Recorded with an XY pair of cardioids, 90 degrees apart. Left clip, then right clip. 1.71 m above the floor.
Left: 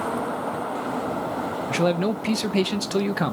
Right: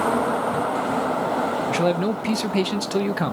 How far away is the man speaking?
About 0.6 m.